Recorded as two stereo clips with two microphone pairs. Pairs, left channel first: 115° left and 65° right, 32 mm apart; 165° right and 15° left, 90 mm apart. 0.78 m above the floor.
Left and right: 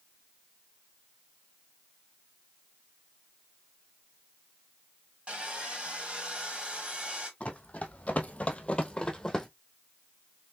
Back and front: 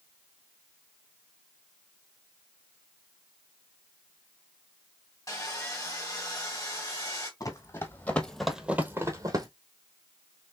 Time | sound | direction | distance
5.3 | sawing | 120° right | 1.6 m
7.4 | running footsteps | 155° left | 1.4 m